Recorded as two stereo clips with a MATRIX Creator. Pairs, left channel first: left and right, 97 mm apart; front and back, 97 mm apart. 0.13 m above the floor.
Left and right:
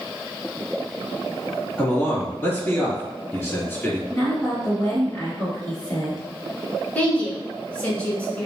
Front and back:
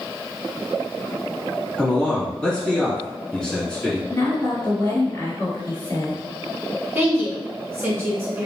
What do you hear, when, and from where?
1.8 s a man speaking: 70° left, 1.4 m
4.1 s a woman speaking: 45° left, 1.9 m
7.0 s a woman speaking: 150° left, 1.3 m